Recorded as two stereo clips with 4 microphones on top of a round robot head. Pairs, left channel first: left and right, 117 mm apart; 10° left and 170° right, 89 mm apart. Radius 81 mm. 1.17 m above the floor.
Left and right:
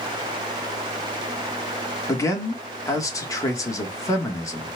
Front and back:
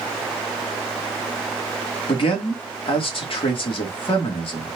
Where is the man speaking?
25° left, 1.8 m.